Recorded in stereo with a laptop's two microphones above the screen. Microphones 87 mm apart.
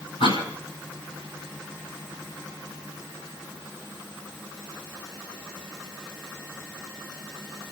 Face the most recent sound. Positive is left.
turn(degrees=75)  # may be behind; listen again after turning